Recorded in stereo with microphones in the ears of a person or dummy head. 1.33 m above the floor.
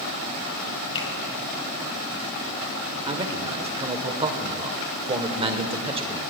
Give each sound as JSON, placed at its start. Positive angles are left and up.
{"t": 0.9, "sound": "a finger snap", "side_deg": 35, "distance_m": 2.5}
{"t": 3.1, "sound": "a man speaking", "side_deg": -30, "distance_m": 0.9}